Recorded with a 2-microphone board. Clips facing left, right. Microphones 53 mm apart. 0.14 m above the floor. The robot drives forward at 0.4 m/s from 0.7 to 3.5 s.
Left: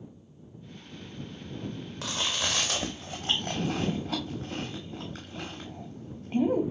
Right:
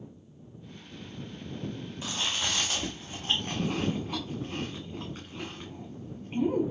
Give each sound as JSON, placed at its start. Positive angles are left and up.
{"t": 2.0, "sound": "chewing", "side_deg": 75, "distance_m": 1.5}